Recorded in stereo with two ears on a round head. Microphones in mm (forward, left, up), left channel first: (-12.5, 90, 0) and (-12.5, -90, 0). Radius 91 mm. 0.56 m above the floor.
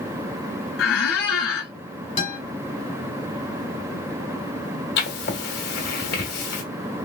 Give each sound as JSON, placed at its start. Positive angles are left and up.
{"t": 0.8, "sound": "a squeak", "side_deg": 75, "distance_m": 1.2}
{"t": 2.2, "sound": "a guitar", "side_deg": 25, "distance_m": 2.0}
{"t": 5.0, "sound": "writing", "side_deg": 55, "distance_m": 1.4}